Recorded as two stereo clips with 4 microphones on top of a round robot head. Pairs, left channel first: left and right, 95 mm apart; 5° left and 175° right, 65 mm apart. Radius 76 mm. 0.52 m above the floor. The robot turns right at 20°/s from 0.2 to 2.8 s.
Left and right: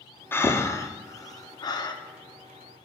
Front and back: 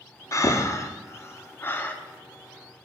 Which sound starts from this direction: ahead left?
Breathing, at 0.3 s.